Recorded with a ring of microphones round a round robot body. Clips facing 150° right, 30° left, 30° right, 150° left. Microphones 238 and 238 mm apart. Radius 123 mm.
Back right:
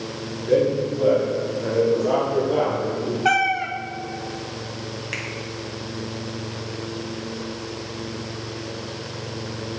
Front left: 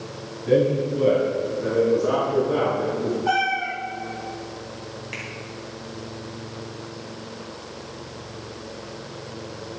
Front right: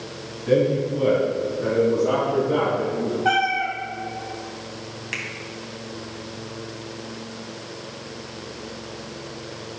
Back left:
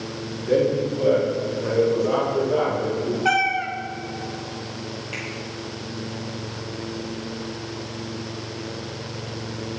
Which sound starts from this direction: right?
A finger snap, at 5.1 s.